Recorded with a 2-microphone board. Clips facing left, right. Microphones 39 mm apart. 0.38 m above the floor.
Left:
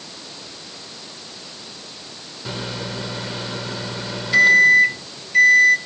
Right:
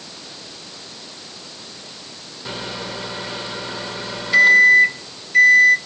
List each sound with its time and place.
2.5 s a microwave: 5° right (ahead or behind), 0.8 m